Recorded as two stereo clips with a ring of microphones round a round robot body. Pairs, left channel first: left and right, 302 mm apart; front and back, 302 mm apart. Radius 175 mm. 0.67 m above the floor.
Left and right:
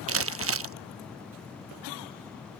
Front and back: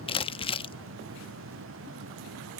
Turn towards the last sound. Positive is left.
turn(degrees=-70)